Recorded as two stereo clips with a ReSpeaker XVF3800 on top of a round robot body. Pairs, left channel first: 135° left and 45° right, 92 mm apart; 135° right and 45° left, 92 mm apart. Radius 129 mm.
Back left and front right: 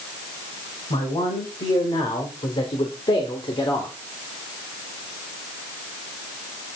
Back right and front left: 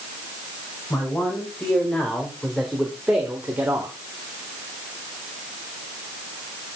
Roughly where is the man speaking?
Behind left.